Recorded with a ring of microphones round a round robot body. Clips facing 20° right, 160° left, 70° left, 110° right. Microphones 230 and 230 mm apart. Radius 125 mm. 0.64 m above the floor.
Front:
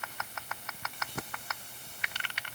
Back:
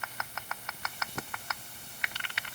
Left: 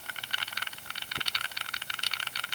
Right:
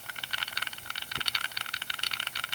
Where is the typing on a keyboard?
I don't hear typing on a keyboard.